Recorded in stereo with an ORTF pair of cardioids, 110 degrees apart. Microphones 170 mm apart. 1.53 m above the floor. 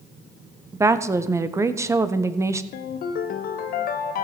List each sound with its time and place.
0.7 s a woman speaking: 15° right, 1.0 m
2.7 s a ringtone: 65° left, 1.2 m